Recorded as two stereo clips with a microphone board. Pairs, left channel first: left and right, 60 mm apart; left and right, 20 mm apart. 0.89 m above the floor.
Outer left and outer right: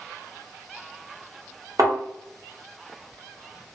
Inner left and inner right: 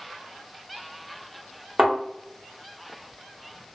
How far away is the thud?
About 1.2 m.